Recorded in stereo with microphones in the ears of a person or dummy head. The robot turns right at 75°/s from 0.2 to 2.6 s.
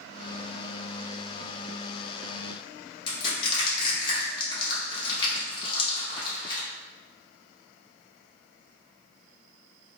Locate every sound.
3.1 s crushing: 30° left (ahead or behind), 1.3 m